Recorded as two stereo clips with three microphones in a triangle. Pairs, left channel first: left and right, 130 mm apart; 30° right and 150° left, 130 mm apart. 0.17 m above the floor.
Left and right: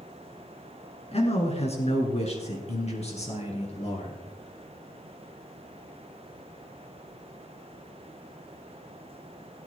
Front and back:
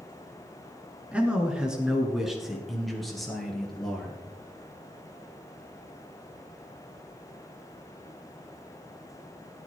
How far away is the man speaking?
About 2.5 m.